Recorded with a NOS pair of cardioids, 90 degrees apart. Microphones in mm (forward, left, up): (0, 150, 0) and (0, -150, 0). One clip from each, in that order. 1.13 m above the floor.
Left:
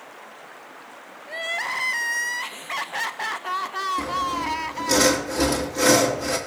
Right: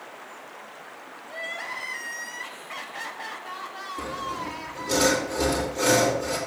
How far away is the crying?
About 0.8 m.